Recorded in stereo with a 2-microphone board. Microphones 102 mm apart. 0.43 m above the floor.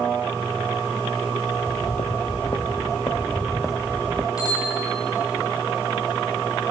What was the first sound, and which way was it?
Footsteps, 70° left (ahead or behind).